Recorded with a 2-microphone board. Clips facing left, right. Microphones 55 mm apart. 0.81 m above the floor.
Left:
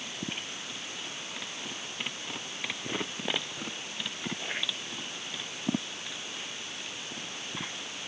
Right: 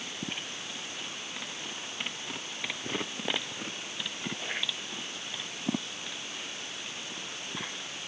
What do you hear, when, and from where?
Only background noise.